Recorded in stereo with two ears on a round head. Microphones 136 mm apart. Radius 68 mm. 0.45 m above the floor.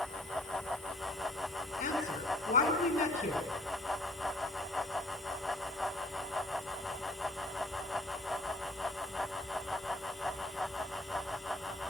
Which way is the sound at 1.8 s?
55° left (ahead or behind).